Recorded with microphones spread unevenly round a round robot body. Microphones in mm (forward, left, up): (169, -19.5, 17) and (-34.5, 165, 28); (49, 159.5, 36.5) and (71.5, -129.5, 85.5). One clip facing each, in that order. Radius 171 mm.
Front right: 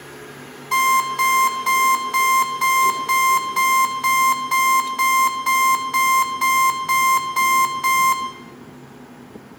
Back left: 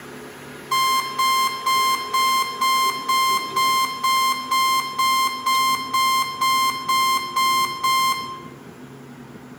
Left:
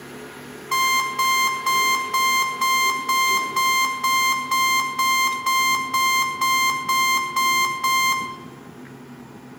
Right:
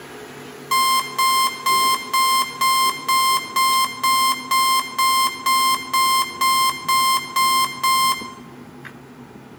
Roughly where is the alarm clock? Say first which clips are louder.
Front right 3 dB, right 3 dB; behind right.